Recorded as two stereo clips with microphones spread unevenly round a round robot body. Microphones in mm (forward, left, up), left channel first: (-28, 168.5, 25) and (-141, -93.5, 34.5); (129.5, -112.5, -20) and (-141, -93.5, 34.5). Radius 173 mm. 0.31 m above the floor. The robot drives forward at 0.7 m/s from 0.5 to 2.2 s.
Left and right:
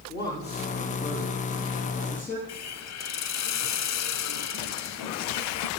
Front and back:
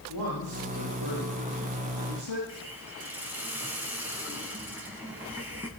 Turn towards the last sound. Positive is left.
turn(degrees=85)